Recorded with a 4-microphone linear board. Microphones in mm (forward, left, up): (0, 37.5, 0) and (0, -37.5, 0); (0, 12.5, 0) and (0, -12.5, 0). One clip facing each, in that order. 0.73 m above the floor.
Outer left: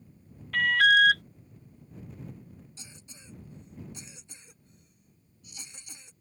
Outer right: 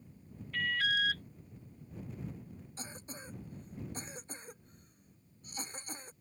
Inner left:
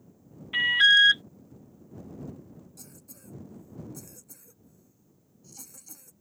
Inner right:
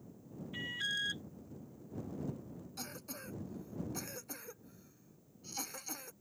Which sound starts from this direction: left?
An alarm, at 0.5 s.